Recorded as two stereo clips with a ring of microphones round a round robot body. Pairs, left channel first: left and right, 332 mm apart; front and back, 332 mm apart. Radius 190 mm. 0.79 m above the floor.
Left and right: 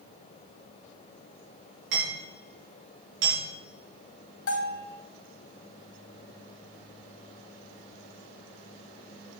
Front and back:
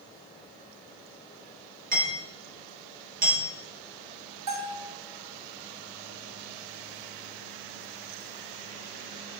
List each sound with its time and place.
1.9 s hammering: 115° right, 4.5 m
4.5 s a bell: 140° left, 2.5 m